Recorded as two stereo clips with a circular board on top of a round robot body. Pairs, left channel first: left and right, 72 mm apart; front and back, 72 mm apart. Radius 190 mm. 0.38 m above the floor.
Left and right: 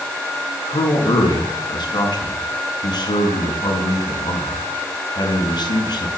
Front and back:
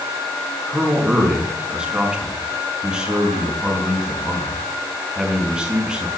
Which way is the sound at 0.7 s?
100° left.